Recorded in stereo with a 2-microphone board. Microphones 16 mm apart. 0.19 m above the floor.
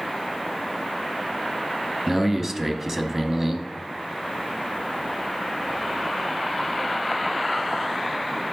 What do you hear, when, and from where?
2.1 s a man speaking: 20° right (ahead or behind), 1.0 m